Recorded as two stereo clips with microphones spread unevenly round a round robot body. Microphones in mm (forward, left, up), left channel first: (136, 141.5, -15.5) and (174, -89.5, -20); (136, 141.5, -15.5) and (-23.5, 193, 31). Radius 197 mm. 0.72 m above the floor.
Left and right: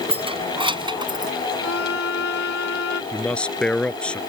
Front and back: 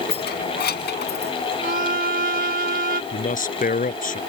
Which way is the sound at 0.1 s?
15° right.